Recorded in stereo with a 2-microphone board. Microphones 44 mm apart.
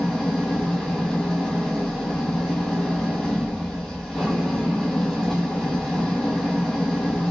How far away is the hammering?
I don't hear hammering.